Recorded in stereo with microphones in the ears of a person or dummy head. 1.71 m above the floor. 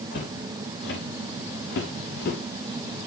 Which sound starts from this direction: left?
Footsteps, at 0.1 s.